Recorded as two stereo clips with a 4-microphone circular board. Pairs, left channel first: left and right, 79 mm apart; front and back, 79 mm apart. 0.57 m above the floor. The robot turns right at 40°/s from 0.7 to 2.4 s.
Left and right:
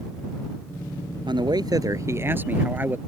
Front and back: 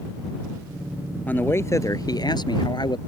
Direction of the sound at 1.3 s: 70° right.